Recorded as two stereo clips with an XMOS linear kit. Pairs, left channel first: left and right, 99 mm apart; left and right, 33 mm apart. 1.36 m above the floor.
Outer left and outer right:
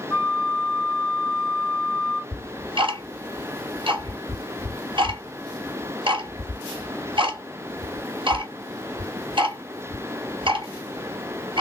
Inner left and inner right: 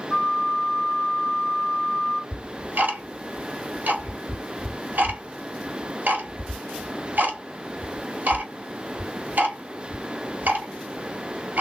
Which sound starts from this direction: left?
A flute, at 0.1 s.